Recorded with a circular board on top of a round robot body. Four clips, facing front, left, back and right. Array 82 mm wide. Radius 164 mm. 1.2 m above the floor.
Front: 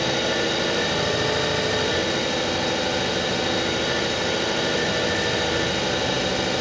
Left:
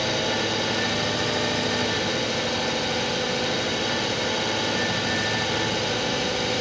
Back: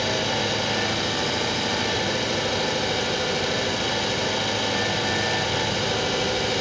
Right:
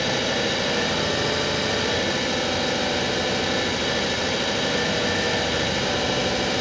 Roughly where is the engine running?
Ahead.